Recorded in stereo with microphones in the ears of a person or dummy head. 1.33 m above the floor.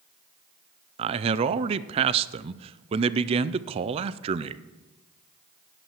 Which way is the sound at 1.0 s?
30° right (ahead or behind).